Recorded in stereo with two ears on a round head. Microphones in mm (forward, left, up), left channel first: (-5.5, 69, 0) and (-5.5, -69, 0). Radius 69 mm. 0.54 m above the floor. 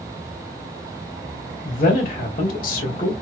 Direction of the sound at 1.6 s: 60° left (ahead or behind).